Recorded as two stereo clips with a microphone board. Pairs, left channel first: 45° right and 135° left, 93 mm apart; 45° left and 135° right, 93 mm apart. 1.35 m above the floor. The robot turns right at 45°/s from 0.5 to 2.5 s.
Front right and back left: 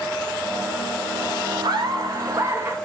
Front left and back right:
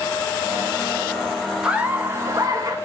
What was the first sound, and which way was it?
Laughter, 145° left.